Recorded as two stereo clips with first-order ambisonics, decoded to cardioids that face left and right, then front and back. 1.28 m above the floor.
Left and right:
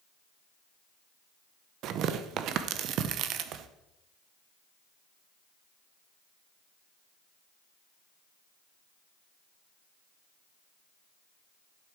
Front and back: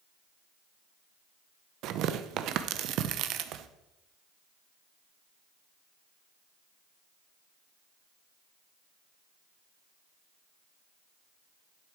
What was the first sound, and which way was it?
Tearing paper, 135° right.